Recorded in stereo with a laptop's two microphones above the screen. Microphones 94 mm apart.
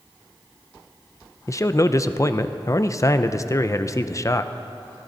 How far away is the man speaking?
About 0.5 m.